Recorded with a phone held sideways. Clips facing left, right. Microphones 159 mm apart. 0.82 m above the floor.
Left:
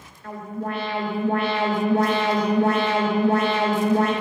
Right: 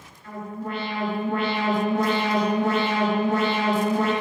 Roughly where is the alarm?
Left.